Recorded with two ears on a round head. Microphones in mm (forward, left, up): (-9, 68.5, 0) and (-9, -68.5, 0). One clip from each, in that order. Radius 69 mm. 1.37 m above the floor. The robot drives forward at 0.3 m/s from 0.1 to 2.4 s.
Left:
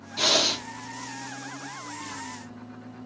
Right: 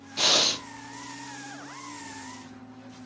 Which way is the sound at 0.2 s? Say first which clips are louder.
Even; 25° right (ahead or behind).